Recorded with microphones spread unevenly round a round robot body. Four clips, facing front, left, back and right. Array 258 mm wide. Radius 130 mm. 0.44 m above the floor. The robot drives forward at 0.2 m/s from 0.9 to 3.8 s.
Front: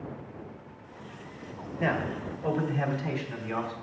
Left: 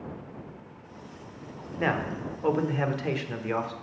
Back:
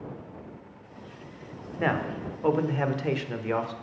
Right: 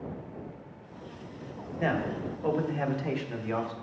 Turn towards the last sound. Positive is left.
turn(degrees=155)